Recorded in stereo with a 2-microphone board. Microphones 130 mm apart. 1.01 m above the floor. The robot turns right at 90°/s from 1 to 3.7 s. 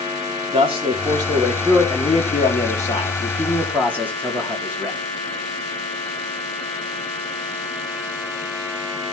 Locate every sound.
0.5 s a man speaking: 50° right, 2.5 m; by 5.0 s 165° right, 2.5 m